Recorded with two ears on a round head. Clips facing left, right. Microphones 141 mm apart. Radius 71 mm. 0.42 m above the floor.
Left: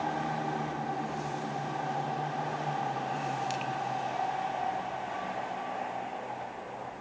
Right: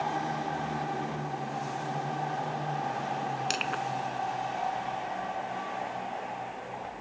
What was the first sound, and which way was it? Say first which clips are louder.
Crushing: right 1 dB; 80° right.